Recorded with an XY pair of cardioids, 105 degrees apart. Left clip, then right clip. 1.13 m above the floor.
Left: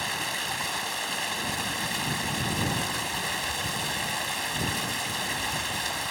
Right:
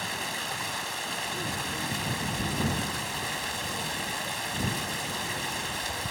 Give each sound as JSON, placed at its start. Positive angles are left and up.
{"t": 0.0, "sound": "running water", "azimuth_deg": 20}